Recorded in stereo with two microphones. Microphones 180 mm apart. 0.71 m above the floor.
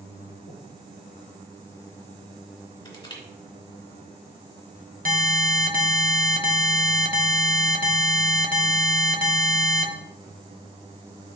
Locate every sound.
0.5 s breathing: 70° left (ahead or behind), 1.8 m
2.9 s crushing: 30° left (ahead or behind), 2.5 m
5.0 s an alarm: 50° right (ahead or behind), 1.1 m